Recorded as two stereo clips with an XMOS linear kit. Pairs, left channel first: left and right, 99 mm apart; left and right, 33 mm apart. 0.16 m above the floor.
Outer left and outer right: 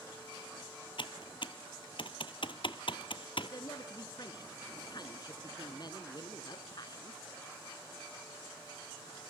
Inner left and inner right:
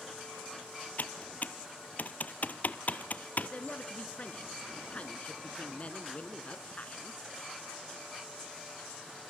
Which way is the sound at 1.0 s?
60° left (ahead or behind).